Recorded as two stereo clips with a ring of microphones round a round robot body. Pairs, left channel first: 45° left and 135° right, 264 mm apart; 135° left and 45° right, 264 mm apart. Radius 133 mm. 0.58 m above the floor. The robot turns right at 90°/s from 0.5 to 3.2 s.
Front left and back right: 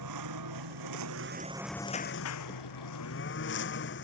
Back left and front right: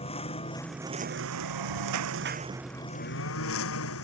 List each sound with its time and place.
0.0 s a lawn mower: 155° right; by 4.0 s 95° left